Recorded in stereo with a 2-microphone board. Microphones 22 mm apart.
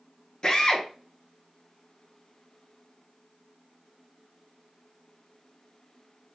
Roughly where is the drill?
Left.